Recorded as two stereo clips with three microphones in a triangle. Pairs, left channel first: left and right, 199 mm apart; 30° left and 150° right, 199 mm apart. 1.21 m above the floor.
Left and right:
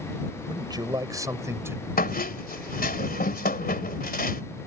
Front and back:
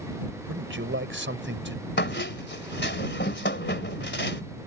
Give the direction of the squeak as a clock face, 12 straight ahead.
10 o'clock.